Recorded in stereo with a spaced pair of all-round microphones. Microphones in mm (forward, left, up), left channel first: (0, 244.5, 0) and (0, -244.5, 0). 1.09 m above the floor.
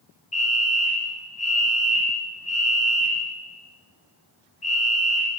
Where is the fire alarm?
50° left (ahead or behind), 2.5 m.